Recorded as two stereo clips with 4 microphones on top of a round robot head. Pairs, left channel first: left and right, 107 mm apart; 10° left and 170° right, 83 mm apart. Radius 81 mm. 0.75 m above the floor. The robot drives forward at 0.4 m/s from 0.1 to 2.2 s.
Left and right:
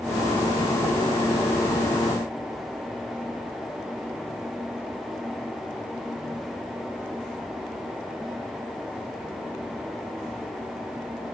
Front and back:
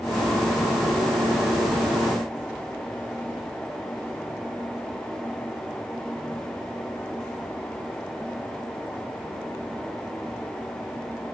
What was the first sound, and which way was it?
Only background noise.